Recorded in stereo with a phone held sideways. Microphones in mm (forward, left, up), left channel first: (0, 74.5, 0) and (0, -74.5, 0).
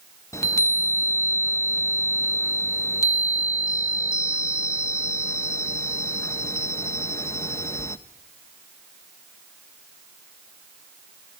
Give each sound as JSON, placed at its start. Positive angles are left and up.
{"t": 0.3, "sound": "a chime", "side_deg": 20, "distance_m": 0.5}